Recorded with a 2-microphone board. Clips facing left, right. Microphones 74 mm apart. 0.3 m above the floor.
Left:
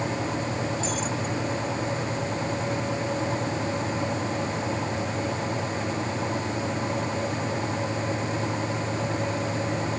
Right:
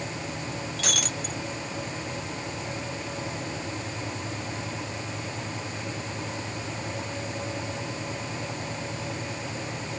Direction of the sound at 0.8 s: 75° right (ahead or behind).